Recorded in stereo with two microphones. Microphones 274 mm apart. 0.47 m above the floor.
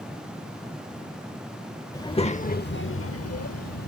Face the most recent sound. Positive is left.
turn(degrees=70)  # may be behind; listen again after turning